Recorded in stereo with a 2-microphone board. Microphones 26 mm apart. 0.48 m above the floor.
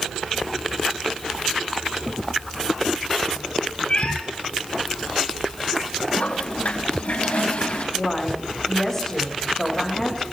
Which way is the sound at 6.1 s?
65° left (ahead or behind).